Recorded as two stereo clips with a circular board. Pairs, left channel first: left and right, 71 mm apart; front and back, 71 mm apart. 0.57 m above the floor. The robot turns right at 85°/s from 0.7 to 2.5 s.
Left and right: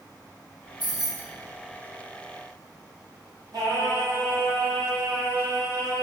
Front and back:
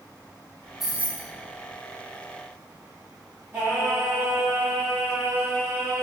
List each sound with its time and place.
0.8 s keys jangling: 95° left, 1.0 m; by 1.3 s 135° left, 1.0 m
3.5 s singing: 120° right, 1.7 m